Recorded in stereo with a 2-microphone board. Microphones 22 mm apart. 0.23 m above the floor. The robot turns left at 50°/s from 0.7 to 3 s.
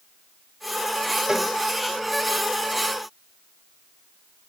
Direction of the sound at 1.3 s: 25° right (ahead or behind).